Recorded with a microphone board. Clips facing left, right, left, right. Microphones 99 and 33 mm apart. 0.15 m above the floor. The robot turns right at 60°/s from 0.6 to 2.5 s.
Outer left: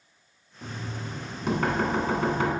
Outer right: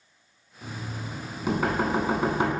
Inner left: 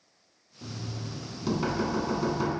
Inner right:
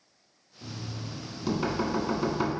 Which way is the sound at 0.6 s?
15° left (ahead or behind).